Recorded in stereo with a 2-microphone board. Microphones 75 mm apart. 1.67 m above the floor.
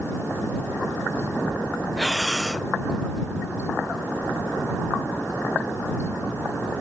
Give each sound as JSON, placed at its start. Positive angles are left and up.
{"t": 2.0, "sound": "breathing", "side_deg": 0}